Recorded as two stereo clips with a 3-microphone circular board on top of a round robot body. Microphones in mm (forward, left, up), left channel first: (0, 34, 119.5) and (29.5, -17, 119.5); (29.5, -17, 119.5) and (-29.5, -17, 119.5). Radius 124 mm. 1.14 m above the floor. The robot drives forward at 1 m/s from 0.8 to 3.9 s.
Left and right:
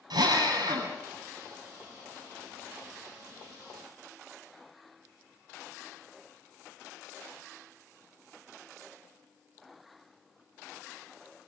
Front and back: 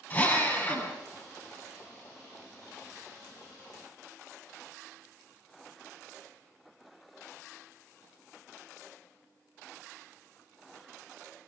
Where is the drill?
65° right, 9.5 m.